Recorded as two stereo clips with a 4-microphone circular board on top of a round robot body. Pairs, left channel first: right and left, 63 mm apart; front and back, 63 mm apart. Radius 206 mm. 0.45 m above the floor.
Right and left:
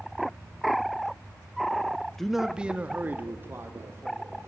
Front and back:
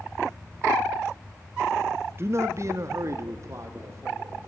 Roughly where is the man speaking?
Behind.